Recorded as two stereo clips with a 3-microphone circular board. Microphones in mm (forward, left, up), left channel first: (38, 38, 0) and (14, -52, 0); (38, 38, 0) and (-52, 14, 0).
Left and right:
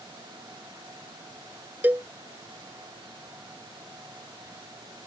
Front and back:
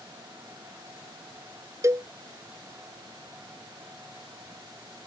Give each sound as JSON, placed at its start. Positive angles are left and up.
{"t": 1.8, "sound": "a cowbell", "azimuth_deg": -160}